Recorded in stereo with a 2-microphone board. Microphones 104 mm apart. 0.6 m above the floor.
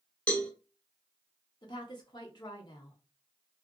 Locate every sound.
0.3 s a cowbell: 15° left (ahead or behind), 0.7 m
1.6 s a woman speaking: 45° left (ahead or behind), 0.9 m